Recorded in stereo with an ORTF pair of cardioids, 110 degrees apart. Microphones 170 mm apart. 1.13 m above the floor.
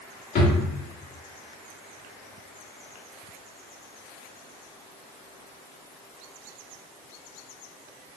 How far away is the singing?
I don't hear singing.